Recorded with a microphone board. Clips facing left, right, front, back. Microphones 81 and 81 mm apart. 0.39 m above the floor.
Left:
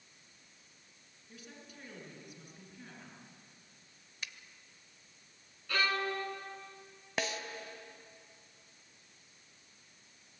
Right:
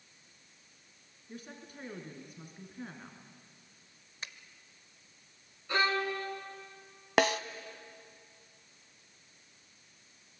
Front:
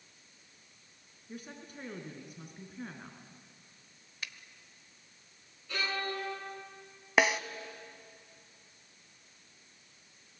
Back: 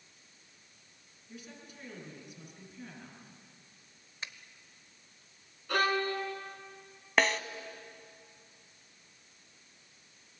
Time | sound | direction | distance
1.3 | a woman speaking | 40° right | 4 m
4.2 | a finger snap | 130° right | 1.1 m
5.7 | a violin | 155° right | 3.5 m
7.2 | a snare drum | 80° right | 0.8 m